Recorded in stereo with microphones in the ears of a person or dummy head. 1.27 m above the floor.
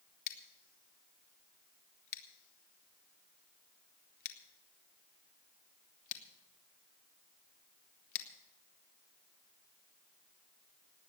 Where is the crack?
I don't hear a crack.